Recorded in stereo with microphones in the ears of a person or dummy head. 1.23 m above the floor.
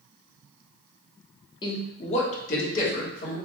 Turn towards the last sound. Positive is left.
turn(degrees=60)  # may be behind; listen again after turning